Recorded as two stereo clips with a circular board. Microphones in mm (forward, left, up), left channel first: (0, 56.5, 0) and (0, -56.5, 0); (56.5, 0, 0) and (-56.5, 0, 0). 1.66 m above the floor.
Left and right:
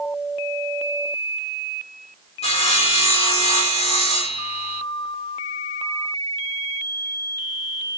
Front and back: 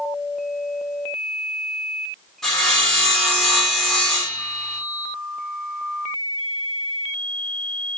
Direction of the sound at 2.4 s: 85° left.